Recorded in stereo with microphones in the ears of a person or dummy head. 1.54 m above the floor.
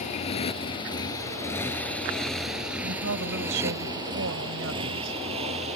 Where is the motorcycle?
35° left (ahead or behind); by 5.8 s 35° right (ahead or behind).